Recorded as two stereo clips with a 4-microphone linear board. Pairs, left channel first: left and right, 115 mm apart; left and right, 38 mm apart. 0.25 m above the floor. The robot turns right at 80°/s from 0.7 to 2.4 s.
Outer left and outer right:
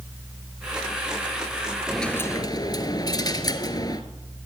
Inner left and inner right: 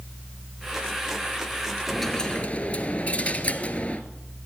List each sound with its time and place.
1.9 s a dropped coin: 5° right, 1.0 m; by 4.0 s 40° left, 1.0 m